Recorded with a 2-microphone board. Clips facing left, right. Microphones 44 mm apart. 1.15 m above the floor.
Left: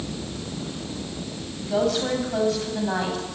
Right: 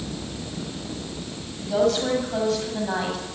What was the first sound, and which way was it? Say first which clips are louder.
A woman speaking: right 2 dB; centre (ahead or behind).